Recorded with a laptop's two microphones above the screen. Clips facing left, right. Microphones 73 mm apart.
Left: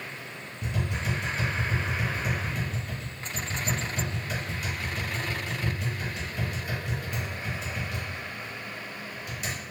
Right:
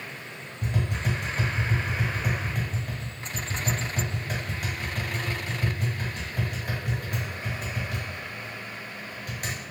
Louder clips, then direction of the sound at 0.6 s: Right 2 dB; 55° right (ahead or behind).